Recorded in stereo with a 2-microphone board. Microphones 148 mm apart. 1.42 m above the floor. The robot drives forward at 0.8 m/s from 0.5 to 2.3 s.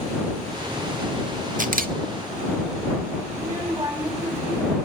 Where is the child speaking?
30° right (ahead or behind), 6 m.